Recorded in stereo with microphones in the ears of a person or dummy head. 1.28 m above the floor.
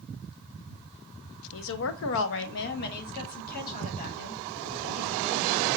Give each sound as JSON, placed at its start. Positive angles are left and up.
{"t": 1.5, "sound": "a woman speaking", "side_deg": 65, "distance_m": 0.6}